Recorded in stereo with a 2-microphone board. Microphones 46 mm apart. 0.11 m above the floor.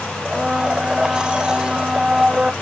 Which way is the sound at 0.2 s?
20° right (ahead or behind).